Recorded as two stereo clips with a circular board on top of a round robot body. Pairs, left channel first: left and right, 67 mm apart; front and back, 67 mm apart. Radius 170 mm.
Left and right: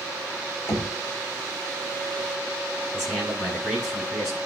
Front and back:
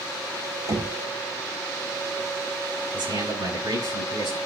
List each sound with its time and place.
0.7 s knocking: 145° left, 4 m
2.9 s a man speaking: 175° left, 6.5 m